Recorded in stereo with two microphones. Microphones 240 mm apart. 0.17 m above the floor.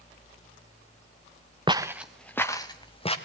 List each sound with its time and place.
1.7 s footsteps: 20° right (ahead or behind), 1.0 m; by 3.2 s 25° left (ahead or behind), 2 m